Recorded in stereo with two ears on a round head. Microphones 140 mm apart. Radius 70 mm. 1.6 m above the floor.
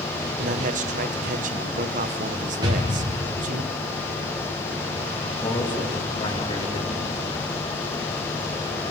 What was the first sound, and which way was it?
A man speaking, 55° right (ahead or behind).